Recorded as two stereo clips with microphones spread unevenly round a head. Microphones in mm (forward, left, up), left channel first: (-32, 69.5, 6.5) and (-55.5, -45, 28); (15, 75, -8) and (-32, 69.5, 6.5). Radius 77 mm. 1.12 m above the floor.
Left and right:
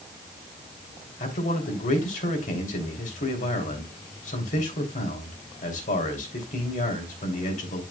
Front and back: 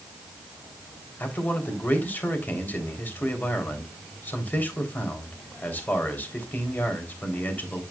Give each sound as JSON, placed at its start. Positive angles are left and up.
{"t": 1.2, "sound": "a man speaking", "azimuth_deg": 55, "distance_m": 3.0}